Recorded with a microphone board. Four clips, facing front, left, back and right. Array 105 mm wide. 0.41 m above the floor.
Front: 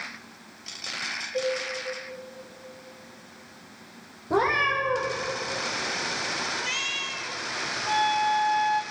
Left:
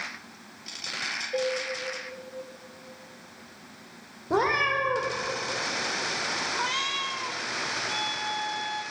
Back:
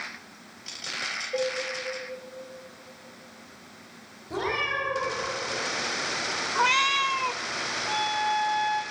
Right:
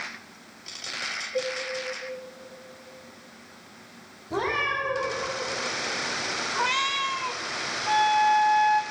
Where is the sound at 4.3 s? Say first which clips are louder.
Left 3 dB, front 6 dB; 50° left, 7 m.